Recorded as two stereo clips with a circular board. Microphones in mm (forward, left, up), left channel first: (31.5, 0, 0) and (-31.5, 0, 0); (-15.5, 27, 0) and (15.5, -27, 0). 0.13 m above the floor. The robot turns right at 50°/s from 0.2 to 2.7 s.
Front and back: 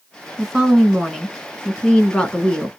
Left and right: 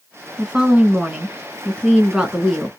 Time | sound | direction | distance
0.4 | a woman speaking | 105° right | 1.2 m